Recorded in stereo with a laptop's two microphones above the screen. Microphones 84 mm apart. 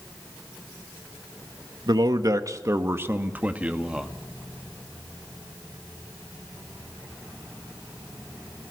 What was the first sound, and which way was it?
A man speaking, 55° right (ahead or behind).